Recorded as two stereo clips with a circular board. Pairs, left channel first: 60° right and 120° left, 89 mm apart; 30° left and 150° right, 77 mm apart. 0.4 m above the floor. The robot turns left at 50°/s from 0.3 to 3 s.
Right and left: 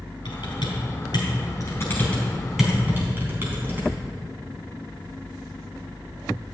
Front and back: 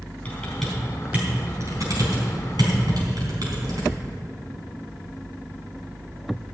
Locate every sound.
0.2 s typing on a keyboard: 40° right, 3.5 m; by 3.9 s 175° right, 3.5 m